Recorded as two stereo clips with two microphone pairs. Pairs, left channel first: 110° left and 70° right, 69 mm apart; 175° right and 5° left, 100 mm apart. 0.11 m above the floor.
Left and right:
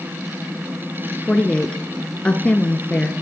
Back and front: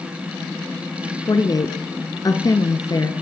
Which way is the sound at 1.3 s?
175° left.